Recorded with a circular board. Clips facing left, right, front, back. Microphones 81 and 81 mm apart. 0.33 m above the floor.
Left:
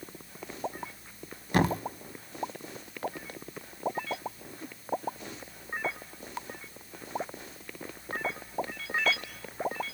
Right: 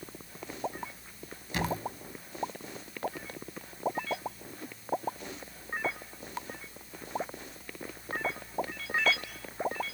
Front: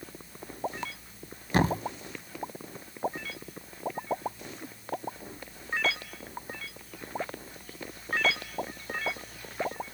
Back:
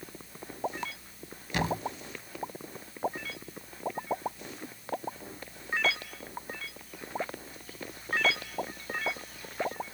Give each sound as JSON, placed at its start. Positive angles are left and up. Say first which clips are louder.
{"t": 1.5, "sound": "a thud", "louder": "left 6 dB, front 5 dB", "azimuth_deg": 50, "distance_m": 0.5}